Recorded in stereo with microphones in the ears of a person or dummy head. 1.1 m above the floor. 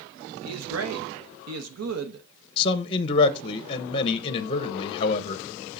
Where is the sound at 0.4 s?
85° right, 0.8 m.